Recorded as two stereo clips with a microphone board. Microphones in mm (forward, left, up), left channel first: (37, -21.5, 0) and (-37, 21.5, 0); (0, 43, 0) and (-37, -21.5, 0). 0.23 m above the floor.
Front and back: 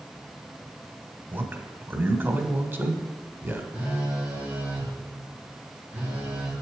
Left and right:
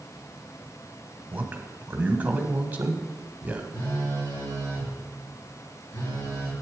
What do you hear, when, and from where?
1.3 s a man speaking: 170° right, 1.2 m
3.7 s a phone buzzing: 80° left, 4.5 m